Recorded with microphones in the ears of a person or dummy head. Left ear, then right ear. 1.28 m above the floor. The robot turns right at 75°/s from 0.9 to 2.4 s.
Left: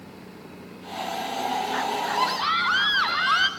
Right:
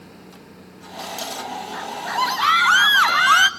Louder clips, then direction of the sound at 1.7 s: Left 1 dB; 160° left.